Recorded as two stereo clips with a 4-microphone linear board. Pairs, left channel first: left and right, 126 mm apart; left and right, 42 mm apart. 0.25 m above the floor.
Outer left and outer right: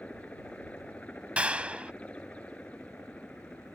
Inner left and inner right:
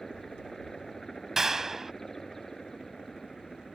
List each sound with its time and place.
0.0 s a helicopter: 10° left (ahead or behind)
1.4 s a clap: 10° right (ahead or behind)